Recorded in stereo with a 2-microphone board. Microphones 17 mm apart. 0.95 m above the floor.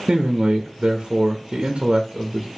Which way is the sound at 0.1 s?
75° right (ahead or behind).